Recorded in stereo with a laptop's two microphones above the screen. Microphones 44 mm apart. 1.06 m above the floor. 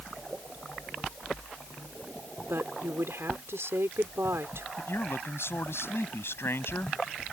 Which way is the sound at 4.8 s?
70° left (ahead or behind).